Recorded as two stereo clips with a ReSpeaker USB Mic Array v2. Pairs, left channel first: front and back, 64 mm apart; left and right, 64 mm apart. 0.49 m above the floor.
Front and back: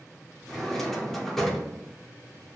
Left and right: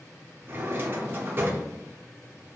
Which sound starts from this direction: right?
A drawer, at 0.5 s.